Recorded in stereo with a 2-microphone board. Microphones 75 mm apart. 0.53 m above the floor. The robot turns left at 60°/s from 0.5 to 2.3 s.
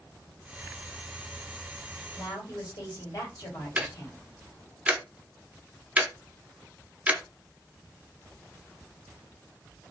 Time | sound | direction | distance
2.1 | a woman speaking | 55° left (ahead or behind) | 2.5 m
3.8 | ticking | 20° right (ahead or behind) | 0.7 m